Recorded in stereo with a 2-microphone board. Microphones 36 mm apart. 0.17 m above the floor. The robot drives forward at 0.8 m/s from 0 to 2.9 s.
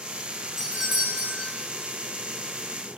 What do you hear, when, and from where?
0.6 s a doorbell: 15° right (ahead or behind), 2 m; by 1.5 s 10° right (ahead or behind), 2.5 m